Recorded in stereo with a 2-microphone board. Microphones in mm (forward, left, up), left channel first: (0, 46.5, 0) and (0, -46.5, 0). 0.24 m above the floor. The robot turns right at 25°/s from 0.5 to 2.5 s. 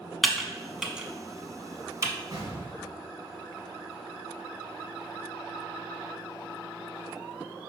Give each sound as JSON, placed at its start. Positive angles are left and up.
{"t": 0.2, "sound": "typing on a keyboard", "side_deg": 0, "distance_m": 0.6}
{"t": 2.3, "sound": "an explosion", "side_deg": -45, "distance_m": 2.5}